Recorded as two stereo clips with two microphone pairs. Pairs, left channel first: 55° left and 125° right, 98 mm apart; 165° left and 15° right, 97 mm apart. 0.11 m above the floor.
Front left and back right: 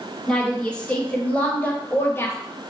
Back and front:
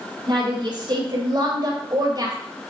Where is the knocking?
No knocking in this recording.